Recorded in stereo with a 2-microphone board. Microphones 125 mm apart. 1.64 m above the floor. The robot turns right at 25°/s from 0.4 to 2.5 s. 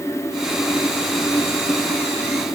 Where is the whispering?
I don't hear whispering.